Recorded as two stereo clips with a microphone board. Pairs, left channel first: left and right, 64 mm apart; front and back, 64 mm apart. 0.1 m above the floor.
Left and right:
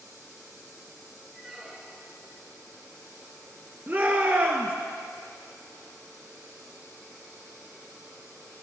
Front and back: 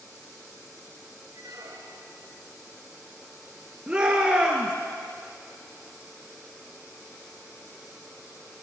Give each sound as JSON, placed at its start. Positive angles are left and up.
{"t": 1.3, "sound": "a squeak", "azimuth_deg": -175, "distance_m": 3.0}
{"t": 3.9, "sound": "a shout", "azimuth_deg": -120, "distance_m": 1.6}